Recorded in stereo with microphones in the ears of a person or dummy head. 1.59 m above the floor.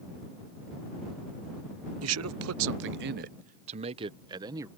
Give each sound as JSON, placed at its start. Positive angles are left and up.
{"t": 2.0, "sound": "a man speaking", "side_deg": -80}